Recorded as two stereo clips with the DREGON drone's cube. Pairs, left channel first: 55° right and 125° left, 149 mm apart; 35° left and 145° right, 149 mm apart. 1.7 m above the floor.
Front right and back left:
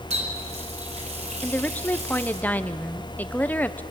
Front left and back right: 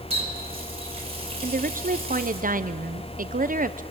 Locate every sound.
0.1 s a running tap: 165° left, 5.5 m
1.4 s a woman speaking: 135° right, 0.9 m